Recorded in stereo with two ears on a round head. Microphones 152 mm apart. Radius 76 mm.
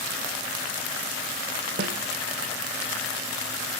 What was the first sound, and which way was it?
A snare drum, 60° right (ahead or behind).